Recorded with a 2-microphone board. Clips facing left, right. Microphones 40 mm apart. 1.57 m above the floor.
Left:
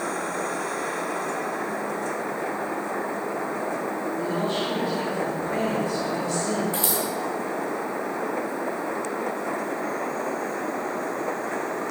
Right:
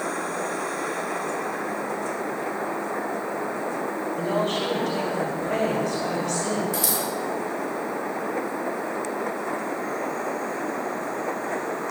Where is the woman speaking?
70° right (ahead or behind), 5.5 m.